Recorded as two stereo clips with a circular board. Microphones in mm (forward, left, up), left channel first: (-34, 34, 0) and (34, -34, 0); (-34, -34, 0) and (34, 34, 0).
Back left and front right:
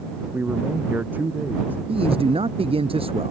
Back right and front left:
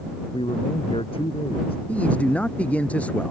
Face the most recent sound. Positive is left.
turn(degrees=-60)